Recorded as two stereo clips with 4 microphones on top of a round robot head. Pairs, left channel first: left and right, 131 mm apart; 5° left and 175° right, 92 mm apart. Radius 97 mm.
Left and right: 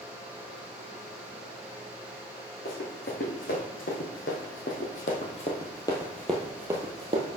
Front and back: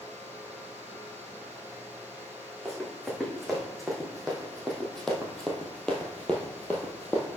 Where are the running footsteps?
95° left, 3.5 m; by 7.3 s 70° right, 1.5 m.